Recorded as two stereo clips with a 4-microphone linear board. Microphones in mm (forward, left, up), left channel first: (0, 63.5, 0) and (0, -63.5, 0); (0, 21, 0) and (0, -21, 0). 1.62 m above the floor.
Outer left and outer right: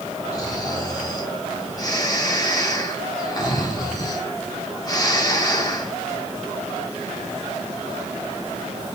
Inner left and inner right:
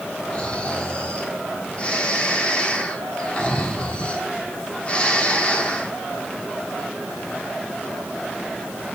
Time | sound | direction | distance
0.3 | snoring | 30° left (ahead or behind) | 3.5 m